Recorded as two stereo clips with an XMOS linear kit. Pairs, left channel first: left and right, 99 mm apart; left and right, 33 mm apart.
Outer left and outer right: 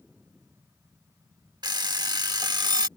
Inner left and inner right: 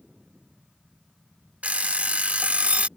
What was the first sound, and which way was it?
An alarm clock, 45° right (ahead or behind).